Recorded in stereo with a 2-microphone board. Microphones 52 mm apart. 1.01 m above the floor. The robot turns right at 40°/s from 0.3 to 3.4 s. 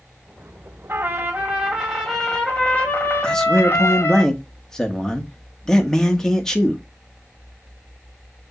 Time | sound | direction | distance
0.9 | a trumpet | 45° right | 2 m
3.2 | a man speaking | 20° left (ahead or behind) | 1.6 m